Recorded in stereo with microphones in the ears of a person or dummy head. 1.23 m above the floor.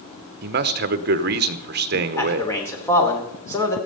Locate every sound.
0.4 s a man speaking: 50° right (ahead or behind), 0.9 m
2.2 s a man speaking: 15° left (ahead or behind), 3 m